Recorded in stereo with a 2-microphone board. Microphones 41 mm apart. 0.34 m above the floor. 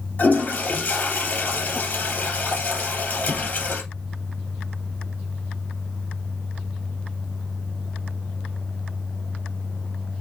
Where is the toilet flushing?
40° left (ahead or behind), 3 m.